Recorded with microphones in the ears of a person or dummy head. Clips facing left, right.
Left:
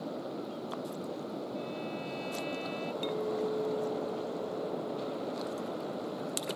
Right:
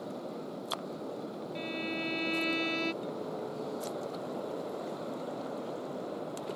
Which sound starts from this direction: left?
A clink, at 3.0 s.